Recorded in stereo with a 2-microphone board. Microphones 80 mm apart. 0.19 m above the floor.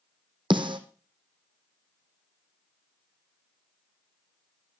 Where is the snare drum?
85° right, 1.7 m.